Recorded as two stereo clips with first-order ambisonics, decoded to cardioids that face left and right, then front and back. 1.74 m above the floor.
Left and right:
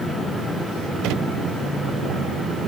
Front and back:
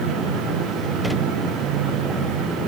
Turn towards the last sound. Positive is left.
No sound to turn to.